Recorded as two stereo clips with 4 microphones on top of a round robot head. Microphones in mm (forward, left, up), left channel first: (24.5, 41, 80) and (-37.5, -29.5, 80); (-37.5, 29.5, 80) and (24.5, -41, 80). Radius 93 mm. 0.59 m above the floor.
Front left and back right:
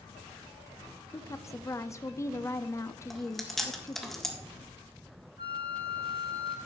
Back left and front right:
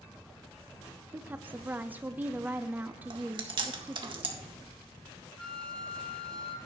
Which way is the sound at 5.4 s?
150° right.